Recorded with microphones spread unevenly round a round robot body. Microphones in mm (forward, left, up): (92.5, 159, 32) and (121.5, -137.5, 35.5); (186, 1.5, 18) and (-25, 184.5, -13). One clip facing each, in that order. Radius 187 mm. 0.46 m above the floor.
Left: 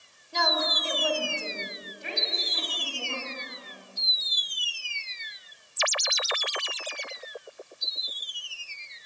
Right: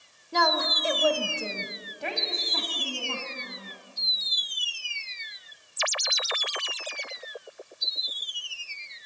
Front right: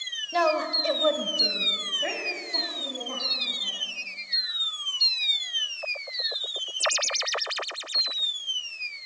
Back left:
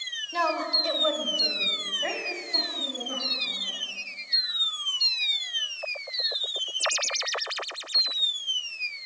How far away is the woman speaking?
About 2 m.